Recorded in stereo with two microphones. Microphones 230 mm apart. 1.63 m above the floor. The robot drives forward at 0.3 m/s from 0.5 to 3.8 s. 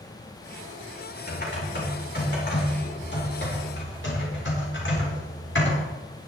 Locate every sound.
1.3 s typing on a keyboard: 50° left (ahead or behind), 5 m; by 5.8 s 55° left (ahead or behind), 4.5 m